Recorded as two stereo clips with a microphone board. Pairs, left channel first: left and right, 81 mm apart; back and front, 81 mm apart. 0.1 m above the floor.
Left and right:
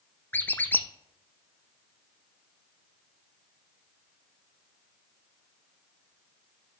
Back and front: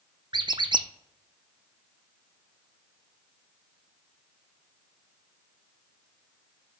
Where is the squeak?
25° left, 0.5 m.